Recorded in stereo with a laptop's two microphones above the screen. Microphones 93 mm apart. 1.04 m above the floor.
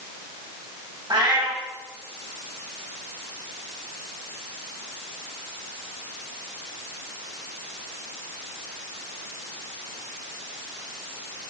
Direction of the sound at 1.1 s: 55° right (ahead or behind).